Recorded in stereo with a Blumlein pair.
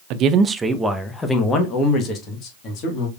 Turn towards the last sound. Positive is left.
turn(degrees=35)